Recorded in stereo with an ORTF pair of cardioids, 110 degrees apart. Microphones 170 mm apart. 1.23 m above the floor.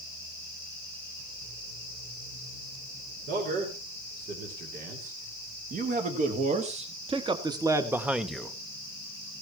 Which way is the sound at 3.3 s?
70° right.